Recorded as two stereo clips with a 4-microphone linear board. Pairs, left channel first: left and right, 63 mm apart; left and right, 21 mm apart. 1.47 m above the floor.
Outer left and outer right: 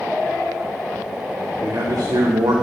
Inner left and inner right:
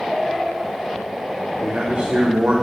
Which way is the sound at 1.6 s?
75° right (ahead or behind).